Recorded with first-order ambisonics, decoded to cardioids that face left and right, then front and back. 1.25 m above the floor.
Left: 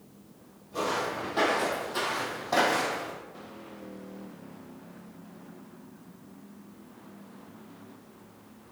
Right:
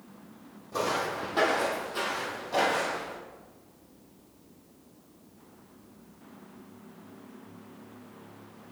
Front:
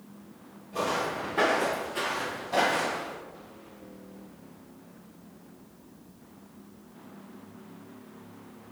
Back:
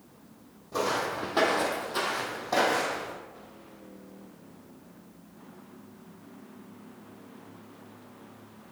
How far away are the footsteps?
About 2.5 m.